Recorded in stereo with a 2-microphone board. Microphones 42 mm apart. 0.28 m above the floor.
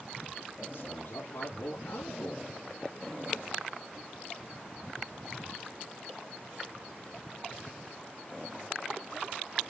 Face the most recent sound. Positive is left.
turn(degrees=70)  # may be behind; listen again after turning